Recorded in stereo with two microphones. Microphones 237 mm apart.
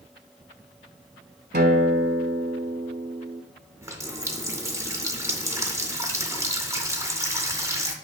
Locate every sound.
1.5 s a guitar: 50° right (ahead or behind), 0.6 m
3.8 s a running tap: 15° right (ahead or behind), 0.6 m